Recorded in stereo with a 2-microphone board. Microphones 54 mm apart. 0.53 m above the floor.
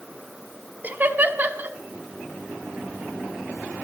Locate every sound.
0.8 s laughter: 35° right (ahead or behind), 1.1 m